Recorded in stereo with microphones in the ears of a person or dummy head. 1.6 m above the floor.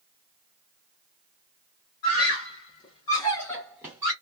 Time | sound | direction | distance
2.0 | a scream | 60° left (ahead or behind) | 1.4 m